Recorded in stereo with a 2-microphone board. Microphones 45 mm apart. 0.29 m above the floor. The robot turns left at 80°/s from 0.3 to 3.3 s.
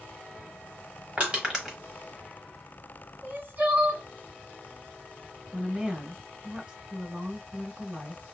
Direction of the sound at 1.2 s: 35° right (ahead or behind).